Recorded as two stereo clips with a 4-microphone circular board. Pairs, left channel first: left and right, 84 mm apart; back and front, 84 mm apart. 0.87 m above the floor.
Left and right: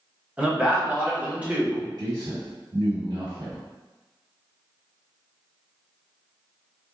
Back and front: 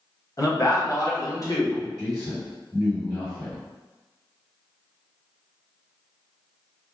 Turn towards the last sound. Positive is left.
turn(degrees=-100)